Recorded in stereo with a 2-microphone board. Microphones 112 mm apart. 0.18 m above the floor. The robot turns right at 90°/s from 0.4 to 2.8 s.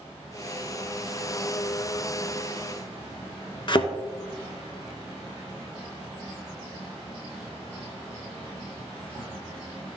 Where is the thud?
45° left (ahead or behind), 0.8 m.